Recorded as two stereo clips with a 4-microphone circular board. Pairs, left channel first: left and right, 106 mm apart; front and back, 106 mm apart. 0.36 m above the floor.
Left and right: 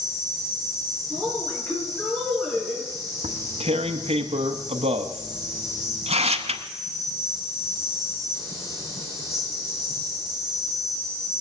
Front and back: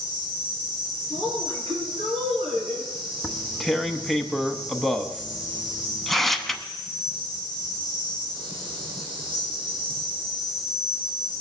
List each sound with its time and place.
0.0 s an insect: 145° left, 4 m
1.1 s a woman speaking: 165° left, 5.5 m
3.2 s tearing paper: 90° right, 0.7 m